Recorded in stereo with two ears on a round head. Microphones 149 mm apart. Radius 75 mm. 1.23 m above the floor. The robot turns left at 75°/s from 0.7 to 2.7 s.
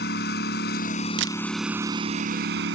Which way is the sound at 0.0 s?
65° left.